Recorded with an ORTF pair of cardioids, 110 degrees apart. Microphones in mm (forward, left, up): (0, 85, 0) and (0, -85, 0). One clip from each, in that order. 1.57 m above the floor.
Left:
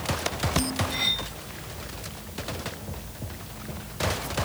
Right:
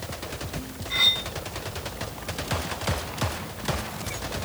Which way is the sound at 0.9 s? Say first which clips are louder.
Right 7 dB; 60° right.